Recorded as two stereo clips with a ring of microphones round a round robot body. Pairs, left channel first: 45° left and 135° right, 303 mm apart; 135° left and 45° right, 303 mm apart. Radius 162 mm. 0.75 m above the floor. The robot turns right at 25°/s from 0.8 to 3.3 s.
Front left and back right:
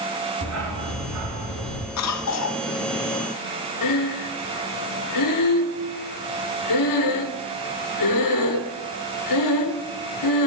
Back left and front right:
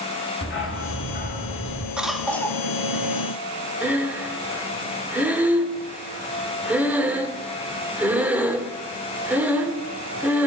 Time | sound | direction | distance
0.4 | a dog barking | 175° right | 3.5 m
2.0 | a cough | 40° left | 1.5 m
3.8 | breathing | 40° left | 1.6 m